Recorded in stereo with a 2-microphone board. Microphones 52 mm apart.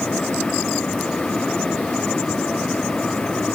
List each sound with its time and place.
Only background noise.